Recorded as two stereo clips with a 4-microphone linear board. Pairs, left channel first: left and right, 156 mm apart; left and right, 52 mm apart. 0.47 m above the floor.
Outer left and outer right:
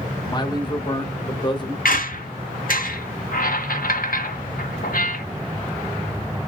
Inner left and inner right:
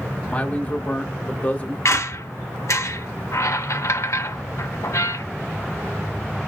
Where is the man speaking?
30° left (ahead or behind), 0.9 m.